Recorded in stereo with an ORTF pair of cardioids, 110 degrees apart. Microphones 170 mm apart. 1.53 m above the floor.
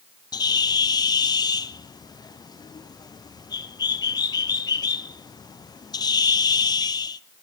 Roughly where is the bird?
Ahead left.